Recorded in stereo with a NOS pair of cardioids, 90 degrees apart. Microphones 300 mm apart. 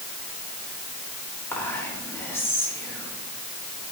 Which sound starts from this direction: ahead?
Whispering, at 1.5 s.